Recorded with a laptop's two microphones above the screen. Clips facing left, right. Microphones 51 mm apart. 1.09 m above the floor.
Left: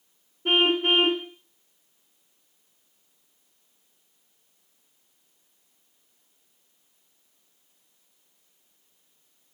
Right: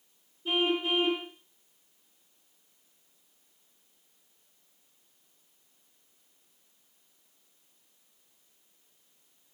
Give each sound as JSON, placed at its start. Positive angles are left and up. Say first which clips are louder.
{"t": 0.5, "sound": "a car horn", "louder": "left 6 dB", "side_deg": 60, "distance_m": 2.0}